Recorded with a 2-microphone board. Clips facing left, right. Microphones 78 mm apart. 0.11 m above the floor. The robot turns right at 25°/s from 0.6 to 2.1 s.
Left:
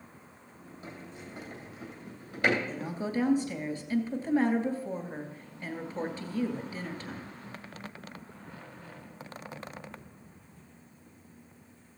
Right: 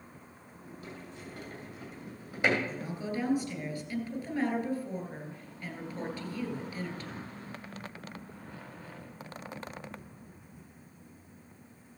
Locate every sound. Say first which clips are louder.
0.8 s a sliding door: left 1 dB; 25° left (ahead or behind), 2.5 m; by 2.6 s 10° right (ahead or behind), 2.5 m
2.7 s a woman speaking: left 3 dB; 25° left (ahead or behind), 2 m